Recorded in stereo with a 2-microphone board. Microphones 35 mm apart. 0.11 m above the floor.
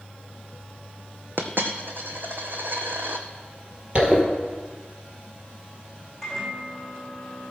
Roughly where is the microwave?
Centre.